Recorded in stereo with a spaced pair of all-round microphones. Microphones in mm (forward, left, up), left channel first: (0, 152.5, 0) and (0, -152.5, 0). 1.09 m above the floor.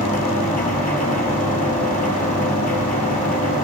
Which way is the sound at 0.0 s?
25° left (ahead or behind).